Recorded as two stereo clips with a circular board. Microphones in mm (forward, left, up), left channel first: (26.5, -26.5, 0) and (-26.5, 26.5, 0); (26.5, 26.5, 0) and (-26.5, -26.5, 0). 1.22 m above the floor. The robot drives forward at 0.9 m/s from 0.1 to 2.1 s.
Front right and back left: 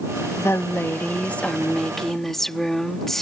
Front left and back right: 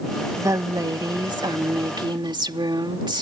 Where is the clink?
I don't hear a clink.